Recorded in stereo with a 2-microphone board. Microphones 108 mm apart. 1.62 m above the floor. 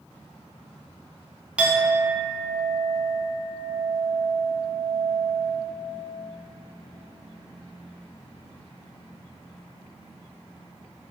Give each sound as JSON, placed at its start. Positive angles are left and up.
{"t": 1.6, "sound": "a clink", "side_deg": -10, "distance_m": 0.5}